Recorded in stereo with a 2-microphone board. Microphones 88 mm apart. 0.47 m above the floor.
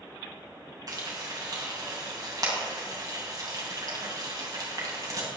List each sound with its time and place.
0.9 s frying: 45° right (ahead or behind), 3 m